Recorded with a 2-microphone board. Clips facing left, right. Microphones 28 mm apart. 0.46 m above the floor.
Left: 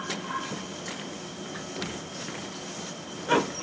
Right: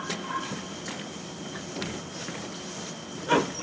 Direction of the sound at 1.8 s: 15° left (ahead or behind).